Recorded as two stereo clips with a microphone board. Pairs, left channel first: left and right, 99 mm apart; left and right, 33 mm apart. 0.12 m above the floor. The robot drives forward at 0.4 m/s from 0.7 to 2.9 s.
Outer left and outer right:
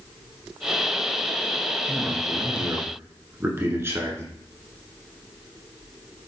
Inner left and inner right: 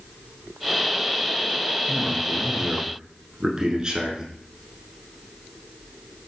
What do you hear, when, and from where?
1.9 s a man speaking: 25° right (ahead or behind), 1.3 m